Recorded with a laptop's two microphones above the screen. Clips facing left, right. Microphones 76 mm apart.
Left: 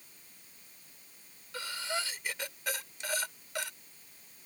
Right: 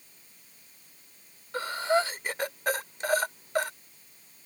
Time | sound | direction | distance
1.5 | breathing | 45° right (ahead or behind) | ?